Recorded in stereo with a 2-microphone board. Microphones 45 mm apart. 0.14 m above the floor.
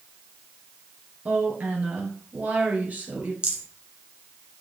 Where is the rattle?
20° right (ahead or behind), 2 m.